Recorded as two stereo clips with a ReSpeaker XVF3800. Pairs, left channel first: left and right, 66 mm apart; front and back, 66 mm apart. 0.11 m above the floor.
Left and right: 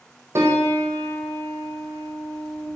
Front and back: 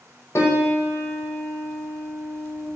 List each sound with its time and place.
0.3 s a piano: 45° right, 0.7 m